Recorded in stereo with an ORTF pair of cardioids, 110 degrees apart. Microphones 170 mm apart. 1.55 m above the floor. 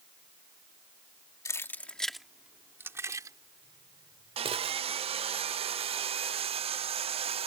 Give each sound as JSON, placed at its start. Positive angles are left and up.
{"t": 1.4, "sound": "keys jangling", "azimuth_deg": 20}
{"t": 4.4, "sound": "sawing", "azimuth_deg": -35}